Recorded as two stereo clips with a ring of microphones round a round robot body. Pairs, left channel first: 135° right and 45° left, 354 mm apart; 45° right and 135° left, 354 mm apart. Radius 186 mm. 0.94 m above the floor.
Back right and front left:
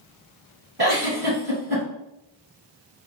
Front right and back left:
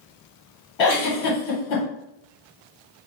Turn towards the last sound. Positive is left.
turn(degrees=-20)